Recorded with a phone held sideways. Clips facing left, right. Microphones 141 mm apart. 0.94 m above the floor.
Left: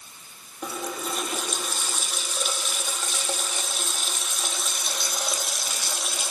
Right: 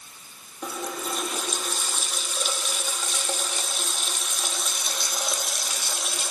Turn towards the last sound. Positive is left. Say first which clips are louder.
# even
turn(degrees=0)  # may be behind; listen again after turning